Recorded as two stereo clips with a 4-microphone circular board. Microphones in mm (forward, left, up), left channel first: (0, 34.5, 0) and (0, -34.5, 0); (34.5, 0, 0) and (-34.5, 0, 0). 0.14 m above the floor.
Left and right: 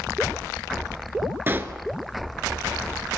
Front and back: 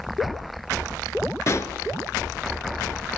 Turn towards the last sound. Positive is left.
turn(degrees=-35)